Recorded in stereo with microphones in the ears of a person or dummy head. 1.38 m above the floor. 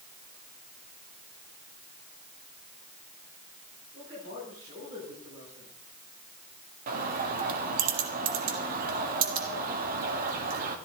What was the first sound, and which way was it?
A man speaking, 40° right (ahead or behind).